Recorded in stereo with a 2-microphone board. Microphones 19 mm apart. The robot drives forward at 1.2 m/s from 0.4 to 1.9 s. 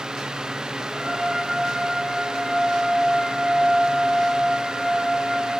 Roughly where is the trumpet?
Right.